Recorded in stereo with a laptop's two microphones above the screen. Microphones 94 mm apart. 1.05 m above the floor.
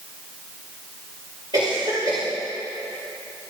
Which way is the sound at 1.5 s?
55° right (ahead or behind).